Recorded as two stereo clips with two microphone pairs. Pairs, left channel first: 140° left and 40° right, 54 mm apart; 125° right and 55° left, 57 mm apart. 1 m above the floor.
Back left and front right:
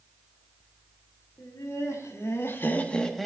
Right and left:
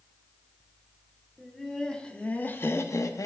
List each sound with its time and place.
1.4 s laughter: 150° left, 2.5 m; by 3.3 s 130° right, 1.2 m